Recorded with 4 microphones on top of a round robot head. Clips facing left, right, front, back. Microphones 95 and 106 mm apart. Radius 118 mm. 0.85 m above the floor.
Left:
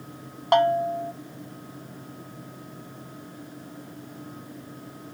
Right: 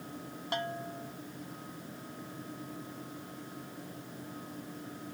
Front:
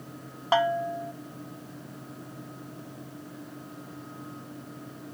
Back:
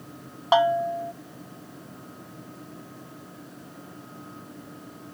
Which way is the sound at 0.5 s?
110° left.